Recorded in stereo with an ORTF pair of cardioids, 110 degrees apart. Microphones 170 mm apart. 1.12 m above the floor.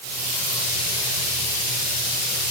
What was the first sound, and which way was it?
Only background noise.